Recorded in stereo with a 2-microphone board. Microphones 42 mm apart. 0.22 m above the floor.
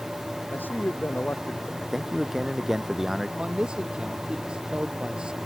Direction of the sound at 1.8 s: 10° right (ahead or behind).